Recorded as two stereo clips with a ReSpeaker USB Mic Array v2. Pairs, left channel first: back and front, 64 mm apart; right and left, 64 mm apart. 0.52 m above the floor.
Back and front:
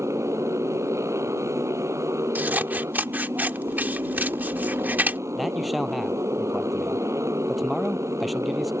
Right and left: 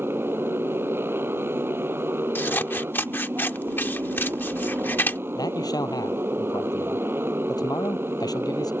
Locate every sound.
0.0 s a motorcycle: 40° left
2.4 s scissors: 50° right
5.3 s a man speaking: 90° right